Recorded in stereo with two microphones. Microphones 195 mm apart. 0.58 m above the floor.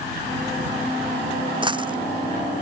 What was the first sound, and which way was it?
A dropped coin, 25° right (ahead or behind).